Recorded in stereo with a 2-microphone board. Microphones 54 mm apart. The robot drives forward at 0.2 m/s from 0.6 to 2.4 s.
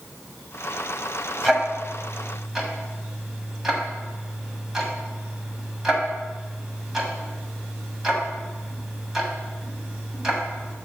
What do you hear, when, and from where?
1.4 s ticking: 10° right (ahead or behind), 1.3 m; by 10.8 s 5° right (ahead or behind), 1.5 m